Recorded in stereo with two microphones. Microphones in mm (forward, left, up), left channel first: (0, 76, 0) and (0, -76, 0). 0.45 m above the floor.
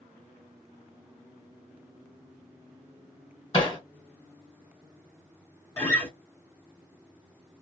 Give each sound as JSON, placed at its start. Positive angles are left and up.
{"t": 3.5, "sound": "hammering", "side_deg": 35, "distance_m": 1.4}
{"t": 5.8, "sound": "a guitar", "side_deg": 20, "distance_m": 1.4}